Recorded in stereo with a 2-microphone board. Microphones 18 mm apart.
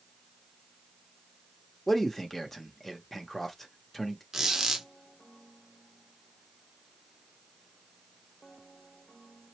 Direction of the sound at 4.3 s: 20° right (ahead or behind).